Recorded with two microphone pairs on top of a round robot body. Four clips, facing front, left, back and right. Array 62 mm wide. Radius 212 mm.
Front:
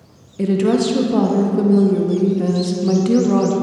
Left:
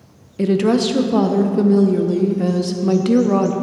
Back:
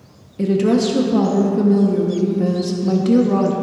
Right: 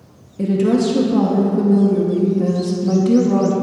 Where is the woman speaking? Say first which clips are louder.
Even, even; 75° left, 0.8 m.